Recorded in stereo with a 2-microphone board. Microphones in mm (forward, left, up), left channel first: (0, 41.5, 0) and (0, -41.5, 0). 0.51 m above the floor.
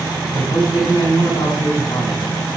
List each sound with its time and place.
0.3 s a man speaking: 70° left (ahead or behind), 3.5 m